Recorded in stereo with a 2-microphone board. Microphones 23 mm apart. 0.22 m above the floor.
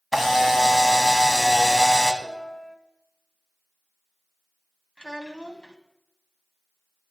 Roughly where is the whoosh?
I don't hear a whoosh.